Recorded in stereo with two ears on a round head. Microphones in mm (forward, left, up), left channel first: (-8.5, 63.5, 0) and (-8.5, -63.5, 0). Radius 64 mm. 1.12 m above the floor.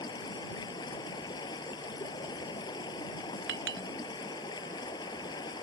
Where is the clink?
80° right.